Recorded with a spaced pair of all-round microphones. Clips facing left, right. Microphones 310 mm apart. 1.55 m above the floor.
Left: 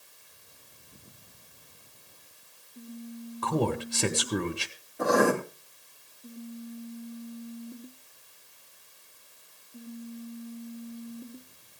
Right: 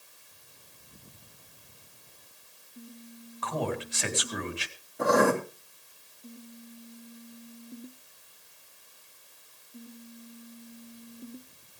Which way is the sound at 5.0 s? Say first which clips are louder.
Even; centre (ahead or behind).